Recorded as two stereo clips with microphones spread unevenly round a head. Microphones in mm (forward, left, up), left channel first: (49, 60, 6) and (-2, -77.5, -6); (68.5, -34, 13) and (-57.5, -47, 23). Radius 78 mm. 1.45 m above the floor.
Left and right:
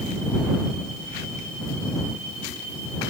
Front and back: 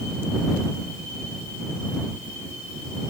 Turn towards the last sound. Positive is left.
No sound to turn to.